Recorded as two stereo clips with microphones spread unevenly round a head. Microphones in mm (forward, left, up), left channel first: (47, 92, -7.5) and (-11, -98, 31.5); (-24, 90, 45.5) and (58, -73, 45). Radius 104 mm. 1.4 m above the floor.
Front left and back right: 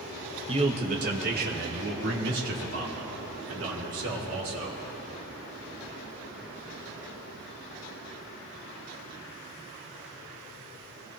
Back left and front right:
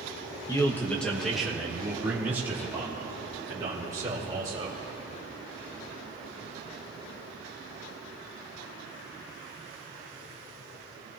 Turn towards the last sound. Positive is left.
turn(degrees=-135)